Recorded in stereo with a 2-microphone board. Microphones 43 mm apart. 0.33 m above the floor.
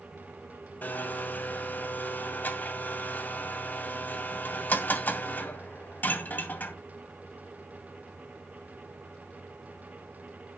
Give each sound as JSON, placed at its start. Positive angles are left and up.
{"t": 0.8, "sound": "a blender", "side_deg": 45, "distance_m": 2.0}